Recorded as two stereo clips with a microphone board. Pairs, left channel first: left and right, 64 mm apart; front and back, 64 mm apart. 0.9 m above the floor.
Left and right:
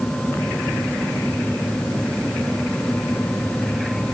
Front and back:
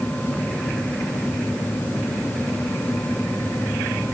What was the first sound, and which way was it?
Only background noise.